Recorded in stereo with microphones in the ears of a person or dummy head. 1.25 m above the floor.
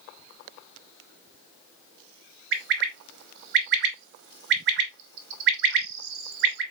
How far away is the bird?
About 0.8 m.